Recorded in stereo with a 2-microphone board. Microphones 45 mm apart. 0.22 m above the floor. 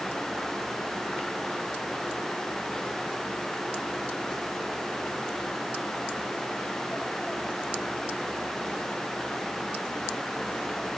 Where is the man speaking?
No man speaking in this recording.